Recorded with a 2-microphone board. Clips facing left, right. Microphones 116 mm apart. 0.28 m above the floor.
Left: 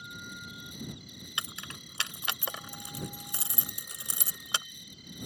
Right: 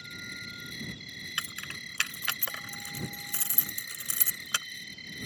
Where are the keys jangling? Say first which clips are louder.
Left 1 dB; 20° left (ahead or behind).